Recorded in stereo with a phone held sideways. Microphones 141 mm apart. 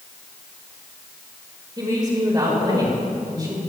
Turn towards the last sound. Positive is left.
turn(degrees=-25)  # may be behind; listen again after turning